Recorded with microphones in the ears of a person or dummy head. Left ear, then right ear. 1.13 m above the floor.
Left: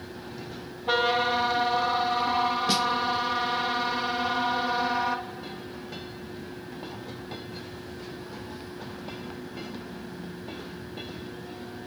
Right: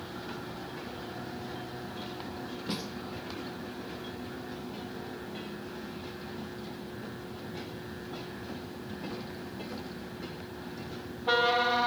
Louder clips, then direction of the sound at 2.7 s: Left 10 dB; 30° left (ahead or behind).